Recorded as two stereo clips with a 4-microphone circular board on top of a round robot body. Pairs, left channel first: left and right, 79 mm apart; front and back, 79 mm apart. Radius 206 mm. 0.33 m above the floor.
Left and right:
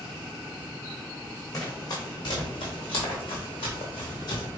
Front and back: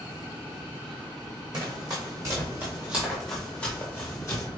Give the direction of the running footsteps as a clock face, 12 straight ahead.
7 o'clock.